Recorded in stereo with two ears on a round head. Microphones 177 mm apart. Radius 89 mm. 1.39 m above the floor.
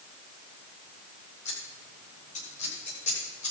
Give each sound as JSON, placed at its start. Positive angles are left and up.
{"t": 1.4, "sound": "scissors", "side_deg": 35, "distance_m": 6.0}